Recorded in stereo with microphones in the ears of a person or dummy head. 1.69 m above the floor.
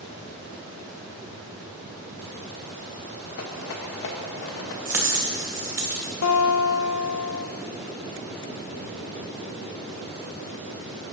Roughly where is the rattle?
Left.